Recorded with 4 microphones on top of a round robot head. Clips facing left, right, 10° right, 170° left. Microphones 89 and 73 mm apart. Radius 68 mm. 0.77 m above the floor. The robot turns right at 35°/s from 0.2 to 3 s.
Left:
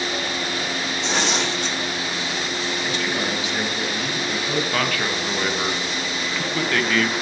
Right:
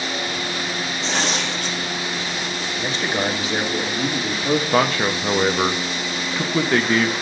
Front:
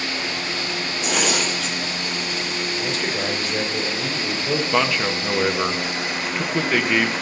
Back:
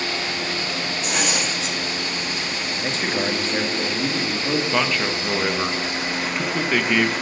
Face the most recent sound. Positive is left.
turn(degrees=-95)